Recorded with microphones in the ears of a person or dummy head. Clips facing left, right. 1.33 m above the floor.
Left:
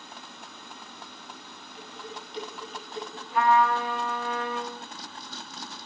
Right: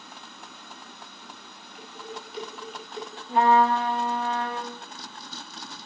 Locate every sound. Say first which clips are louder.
1.8 s dishes clattering: right 2 dB; 5° right (ahead or behind), 6.5 m
3.3 s a trumpet: right 3 dB; 25° right (ahead or behind), 1.1 m